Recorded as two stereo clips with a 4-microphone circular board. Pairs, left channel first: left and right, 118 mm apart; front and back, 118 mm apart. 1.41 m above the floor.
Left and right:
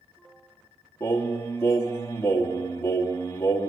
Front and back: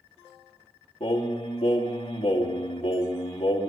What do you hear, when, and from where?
1.0 s singing: 20° left, 1.9 m